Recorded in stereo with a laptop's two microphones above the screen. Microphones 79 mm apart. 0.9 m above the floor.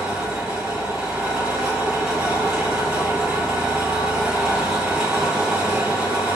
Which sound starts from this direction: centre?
An engine running, at 0.0 s.